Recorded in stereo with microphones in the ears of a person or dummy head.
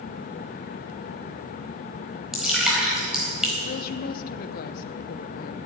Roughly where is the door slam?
I don't hear a door slam.